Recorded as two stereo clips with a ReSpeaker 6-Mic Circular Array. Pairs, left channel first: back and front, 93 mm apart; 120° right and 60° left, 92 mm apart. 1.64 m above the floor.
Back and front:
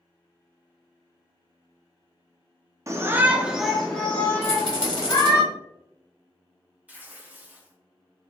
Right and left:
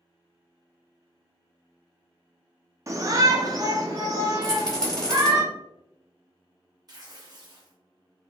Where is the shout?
30° left, 0.6 m; by 5.4 s 120° left, 1.3 m.